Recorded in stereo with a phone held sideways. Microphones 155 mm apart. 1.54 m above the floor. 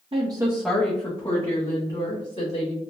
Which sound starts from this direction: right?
A woman speaking, at 0.1 s.